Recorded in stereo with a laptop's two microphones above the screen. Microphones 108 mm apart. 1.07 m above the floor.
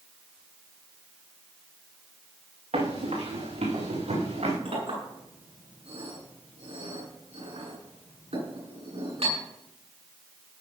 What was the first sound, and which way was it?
Running footsteps, 80° right.